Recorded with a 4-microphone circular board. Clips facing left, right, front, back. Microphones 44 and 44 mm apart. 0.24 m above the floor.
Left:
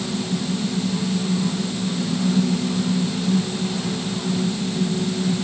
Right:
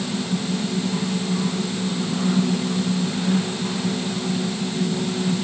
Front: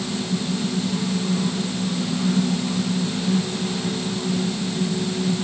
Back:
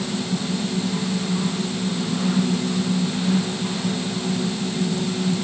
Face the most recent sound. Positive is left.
No sound to turn to.